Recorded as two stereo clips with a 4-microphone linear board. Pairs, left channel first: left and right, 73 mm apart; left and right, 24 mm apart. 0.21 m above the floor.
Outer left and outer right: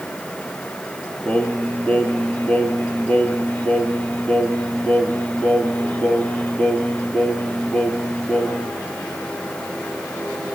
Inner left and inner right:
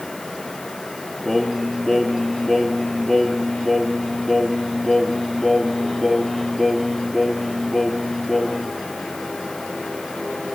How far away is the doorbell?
No doorbell in this recording.